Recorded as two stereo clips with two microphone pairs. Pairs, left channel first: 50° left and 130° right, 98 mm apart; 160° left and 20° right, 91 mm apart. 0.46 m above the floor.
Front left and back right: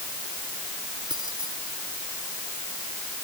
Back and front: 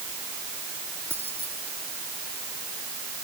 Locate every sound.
1.1 s keys jangling: 90° right